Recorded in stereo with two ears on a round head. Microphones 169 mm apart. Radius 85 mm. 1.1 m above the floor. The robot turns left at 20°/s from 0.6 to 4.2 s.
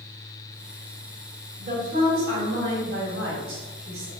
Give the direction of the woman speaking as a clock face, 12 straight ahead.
1 o'clock.